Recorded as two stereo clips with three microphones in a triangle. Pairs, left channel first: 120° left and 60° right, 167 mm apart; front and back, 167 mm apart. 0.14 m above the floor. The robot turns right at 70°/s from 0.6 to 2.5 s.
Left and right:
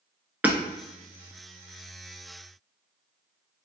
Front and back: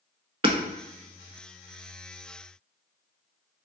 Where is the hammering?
135° right, 0.5 m.